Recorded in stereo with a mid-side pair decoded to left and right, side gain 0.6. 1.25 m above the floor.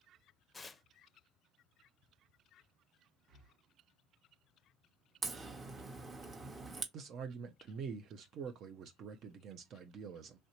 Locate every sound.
0.5 s tearing paper: 20° left, 0.6 m
3.3 s breathing: 50° right, 0.7 m
5.2 s a crack: 25° right, 0.9 m
6.9 s a man speaking: 55° right, 0.6 m